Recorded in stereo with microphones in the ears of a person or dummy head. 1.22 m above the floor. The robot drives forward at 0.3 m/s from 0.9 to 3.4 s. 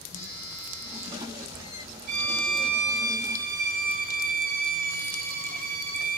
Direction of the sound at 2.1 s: 45° right (ahead or behind).